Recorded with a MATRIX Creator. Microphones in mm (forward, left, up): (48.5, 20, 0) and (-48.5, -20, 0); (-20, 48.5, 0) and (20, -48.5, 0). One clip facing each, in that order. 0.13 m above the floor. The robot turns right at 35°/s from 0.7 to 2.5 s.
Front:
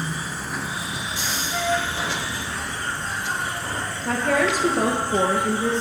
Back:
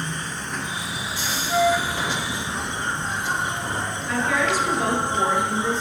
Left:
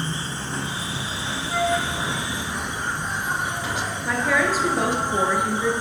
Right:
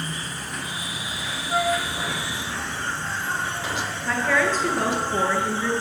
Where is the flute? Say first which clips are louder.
Back 5 dB, even; 135° right, 3 m; by 1.8 s 125° right, 3 m.